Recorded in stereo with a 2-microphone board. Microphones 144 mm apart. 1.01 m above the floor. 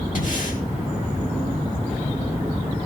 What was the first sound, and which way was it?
Breathing, 65° left (ahead or behind).